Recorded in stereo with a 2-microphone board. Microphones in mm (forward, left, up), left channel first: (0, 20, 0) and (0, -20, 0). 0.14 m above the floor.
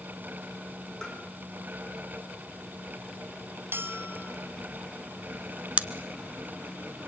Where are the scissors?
35° right (ahead or behind), 1.1 m.